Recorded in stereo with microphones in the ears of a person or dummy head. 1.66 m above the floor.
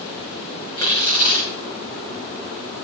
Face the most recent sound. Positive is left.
turn(degrees=25)  # may be behind; listen again after turning